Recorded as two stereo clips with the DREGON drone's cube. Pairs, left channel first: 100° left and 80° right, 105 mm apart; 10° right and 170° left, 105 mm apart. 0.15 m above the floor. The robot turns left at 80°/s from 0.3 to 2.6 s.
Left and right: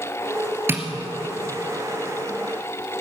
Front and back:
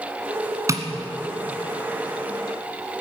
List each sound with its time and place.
0.7 s tapping: 140° right, 1.7 m; by 0.8 s 150° right, 1.7 m